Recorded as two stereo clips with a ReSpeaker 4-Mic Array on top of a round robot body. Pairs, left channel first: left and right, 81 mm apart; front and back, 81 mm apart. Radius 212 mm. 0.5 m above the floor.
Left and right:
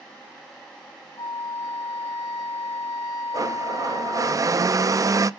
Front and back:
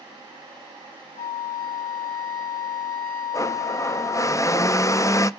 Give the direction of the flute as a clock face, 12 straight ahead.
10 o'clock.